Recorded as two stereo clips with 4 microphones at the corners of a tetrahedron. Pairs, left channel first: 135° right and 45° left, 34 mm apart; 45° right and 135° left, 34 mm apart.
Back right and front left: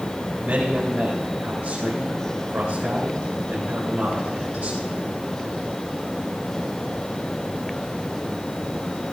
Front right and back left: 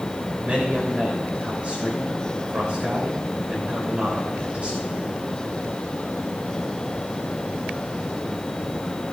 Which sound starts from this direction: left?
A man speaking, at 0.4 s.